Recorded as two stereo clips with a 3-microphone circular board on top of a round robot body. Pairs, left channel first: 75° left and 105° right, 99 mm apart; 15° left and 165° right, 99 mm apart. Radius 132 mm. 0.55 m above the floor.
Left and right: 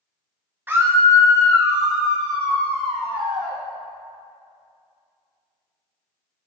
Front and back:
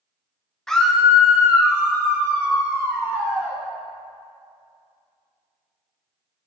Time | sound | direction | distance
0.7 | a scream | 60° right | 1.0 m